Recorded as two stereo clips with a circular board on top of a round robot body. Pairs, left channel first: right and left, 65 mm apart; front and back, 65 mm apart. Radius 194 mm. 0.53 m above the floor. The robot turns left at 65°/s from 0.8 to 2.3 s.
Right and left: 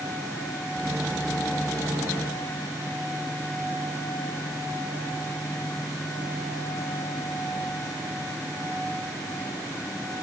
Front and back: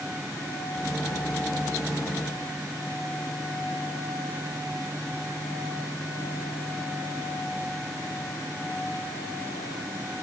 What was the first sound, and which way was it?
Only background noise.